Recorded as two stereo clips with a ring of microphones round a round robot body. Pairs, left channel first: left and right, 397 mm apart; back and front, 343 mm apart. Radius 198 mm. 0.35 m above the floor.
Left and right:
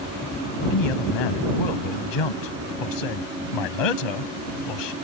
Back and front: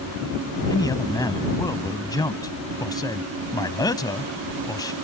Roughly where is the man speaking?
Left.